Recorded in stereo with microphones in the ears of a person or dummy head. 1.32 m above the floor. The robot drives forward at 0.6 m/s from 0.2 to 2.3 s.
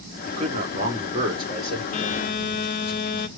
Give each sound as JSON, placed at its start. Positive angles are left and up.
{"t": 0.2, "sound": "a man speaking", "side_deg": -40, "distance_m": 0.9}
{"t": 1.9, "sound": "a phone buzzing", "side_deg": 45, "distance_m": 0.7}